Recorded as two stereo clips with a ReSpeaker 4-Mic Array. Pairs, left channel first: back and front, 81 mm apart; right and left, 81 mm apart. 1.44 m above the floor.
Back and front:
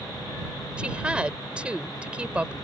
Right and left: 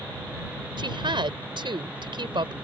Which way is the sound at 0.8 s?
75° left.